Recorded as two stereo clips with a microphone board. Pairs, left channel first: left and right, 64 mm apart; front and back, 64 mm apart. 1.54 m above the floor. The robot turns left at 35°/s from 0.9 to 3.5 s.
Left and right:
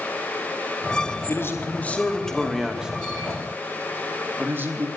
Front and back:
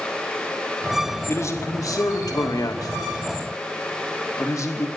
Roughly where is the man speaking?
Ahead left.